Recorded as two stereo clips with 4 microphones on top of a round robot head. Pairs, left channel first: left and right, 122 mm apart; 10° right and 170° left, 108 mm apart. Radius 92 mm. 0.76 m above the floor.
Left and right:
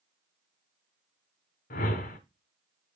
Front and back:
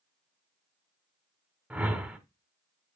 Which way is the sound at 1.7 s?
95° left.